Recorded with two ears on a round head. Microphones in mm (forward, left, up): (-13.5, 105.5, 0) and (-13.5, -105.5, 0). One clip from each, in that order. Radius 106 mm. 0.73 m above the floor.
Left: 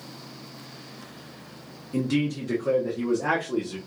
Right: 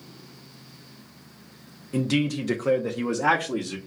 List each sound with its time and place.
1.9 s a man speaking: 10° right (ahead or behind), 0.8 m; by 3.8 s 65° right (ahead or behind), 1.1 m